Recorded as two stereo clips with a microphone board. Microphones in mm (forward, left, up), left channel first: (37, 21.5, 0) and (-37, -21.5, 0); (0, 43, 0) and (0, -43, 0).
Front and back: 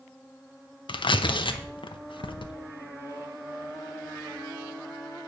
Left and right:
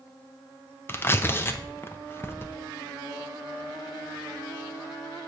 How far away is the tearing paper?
About 0.8 m.